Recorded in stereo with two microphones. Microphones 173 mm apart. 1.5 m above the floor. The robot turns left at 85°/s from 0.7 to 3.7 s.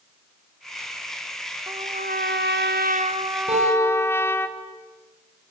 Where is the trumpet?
20° right, 1.3 m; by 4.5 s 165° left, 1.3 m.